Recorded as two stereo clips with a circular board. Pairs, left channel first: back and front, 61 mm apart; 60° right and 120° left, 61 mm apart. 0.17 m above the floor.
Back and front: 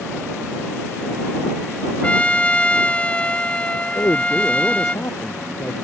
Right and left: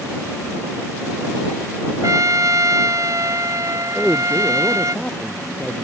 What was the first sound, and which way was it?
A trumpet, 115° left.